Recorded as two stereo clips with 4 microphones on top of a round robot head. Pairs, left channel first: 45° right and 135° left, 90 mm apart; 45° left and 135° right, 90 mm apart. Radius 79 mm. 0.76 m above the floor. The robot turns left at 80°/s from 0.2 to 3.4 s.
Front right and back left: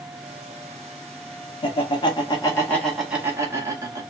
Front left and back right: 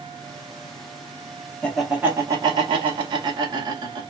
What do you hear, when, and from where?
1.6 s laughter: 30° right, 1.7 m; by 4.0 s 170° right, 1.7 m